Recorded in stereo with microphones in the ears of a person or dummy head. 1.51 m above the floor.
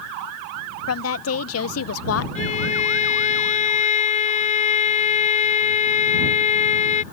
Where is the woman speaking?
90° left; by 2.2 s 80° left.